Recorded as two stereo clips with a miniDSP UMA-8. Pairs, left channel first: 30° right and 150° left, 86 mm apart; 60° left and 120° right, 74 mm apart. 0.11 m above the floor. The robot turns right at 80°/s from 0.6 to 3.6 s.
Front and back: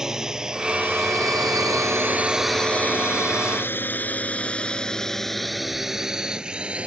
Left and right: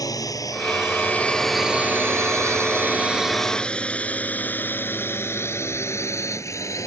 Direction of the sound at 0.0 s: 70° left.